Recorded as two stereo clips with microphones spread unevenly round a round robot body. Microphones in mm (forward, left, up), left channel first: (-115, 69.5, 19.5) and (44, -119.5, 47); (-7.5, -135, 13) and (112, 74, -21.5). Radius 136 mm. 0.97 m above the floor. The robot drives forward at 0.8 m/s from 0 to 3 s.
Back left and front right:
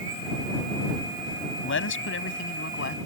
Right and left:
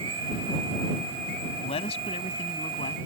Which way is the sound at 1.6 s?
170° left.